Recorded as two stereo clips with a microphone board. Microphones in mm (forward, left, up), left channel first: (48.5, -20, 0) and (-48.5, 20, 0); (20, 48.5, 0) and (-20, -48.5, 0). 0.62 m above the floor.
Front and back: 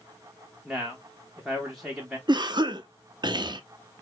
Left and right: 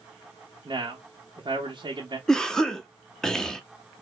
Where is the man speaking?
115° right, 0.8 m.